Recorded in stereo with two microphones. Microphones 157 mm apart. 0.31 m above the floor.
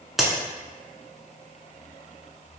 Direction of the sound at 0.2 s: Centre (ahead or behind).